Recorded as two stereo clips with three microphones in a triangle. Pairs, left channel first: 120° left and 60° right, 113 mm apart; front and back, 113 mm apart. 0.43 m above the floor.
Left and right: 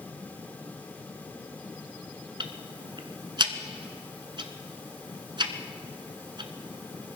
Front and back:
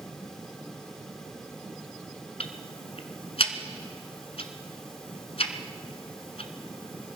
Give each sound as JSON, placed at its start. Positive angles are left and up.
{"t": 2.4, "sound": "ticking", "azimuth_deg": -20, "distance_m": 1.1}